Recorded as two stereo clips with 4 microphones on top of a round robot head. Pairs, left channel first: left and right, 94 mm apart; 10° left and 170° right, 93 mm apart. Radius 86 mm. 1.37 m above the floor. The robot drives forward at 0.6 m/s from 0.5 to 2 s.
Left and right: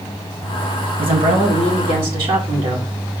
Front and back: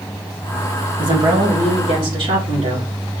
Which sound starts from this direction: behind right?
A woman speaking, at 1.0 s.